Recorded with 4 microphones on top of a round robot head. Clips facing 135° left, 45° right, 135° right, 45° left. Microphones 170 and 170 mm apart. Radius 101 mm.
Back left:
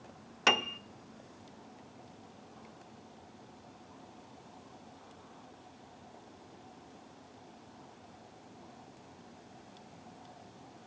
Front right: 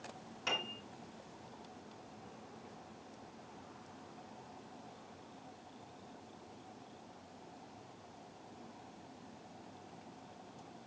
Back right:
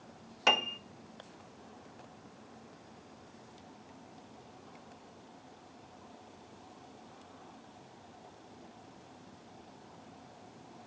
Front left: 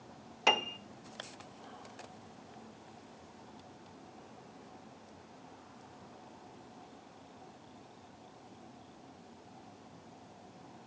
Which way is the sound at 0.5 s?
135° left.